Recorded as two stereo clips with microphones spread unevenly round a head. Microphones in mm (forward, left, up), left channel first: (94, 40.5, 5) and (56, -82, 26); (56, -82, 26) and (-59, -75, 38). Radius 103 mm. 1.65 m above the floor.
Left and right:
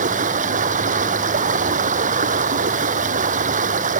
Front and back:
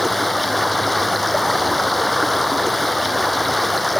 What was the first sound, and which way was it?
Running water, 95° right.